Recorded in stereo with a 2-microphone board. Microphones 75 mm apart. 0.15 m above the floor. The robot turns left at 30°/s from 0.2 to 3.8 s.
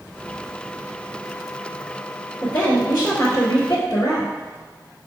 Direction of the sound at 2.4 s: 155° left.